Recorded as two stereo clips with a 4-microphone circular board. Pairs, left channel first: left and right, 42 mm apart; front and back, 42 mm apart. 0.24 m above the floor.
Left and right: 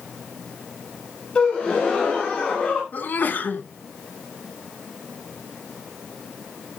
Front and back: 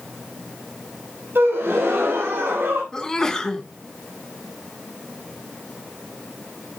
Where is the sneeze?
70° left, 2.5 m.